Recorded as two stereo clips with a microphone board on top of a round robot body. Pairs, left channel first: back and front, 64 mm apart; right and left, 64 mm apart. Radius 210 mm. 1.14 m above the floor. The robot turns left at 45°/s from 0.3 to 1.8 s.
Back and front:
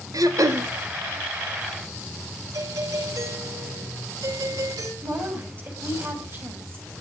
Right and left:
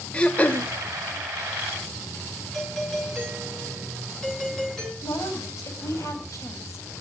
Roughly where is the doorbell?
Ahead.